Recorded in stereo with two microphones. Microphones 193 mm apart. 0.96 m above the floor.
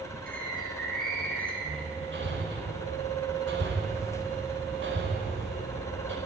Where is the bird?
50° right (ahead or behind), 6.5 m.